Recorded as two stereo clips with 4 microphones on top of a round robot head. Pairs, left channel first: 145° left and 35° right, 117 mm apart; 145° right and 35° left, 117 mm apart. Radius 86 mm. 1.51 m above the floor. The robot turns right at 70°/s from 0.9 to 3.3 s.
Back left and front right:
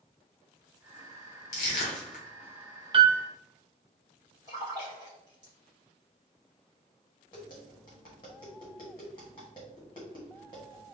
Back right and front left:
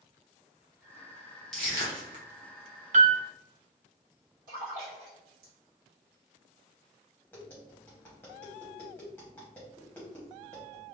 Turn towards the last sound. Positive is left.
turn(degrees=145)